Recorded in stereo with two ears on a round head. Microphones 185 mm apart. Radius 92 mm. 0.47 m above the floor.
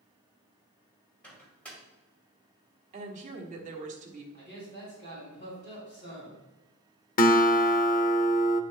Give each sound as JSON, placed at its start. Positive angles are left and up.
{"t": 1.2, "sound": "a microwave", "side_deg": 5, "distance_m": 2.0}
{"t": 2.9, "sound": "a woman speaking", "side_deg": -35, "distance_m": 1.4}
{"t": 4.3, "sound": "a man speaking", "side_deg": 35, "distance_m": 3.5}
{"t": 7.2, "sound": "a guitar", "side_deg": 40, "distance_m": 0.5}